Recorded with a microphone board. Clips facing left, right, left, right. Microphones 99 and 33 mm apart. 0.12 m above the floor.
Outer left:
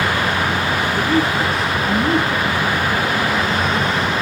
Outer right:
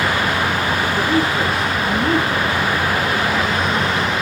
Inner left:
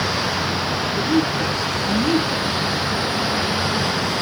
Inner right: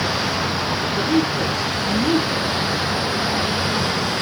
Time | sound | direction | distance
1.0 | a woman speaking | centre (ahead or behind) | 1.5 m